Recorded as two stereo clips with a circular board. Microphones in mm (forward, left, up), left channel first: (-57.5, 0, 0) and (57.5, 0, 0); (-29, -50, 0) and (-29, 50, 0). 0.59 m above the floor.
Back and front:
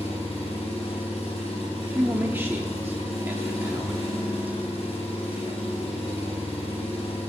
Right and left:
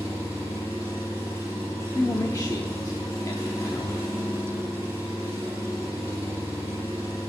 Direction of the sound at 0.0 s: 155° right.